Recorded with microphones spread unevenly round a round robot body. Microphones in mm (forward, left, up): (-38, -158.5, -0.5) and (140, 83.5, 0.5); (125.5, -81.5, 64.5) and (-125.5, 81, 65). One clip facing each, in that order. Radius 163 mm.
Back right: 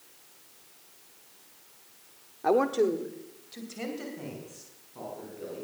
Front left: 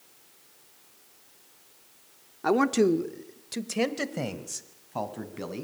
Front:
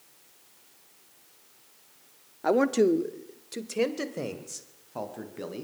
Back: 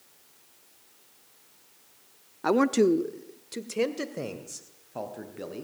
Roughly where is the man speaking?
Left.